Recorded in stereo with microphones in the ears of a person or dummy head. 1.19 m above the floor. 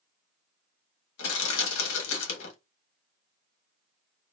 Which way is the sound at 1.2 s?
80° left.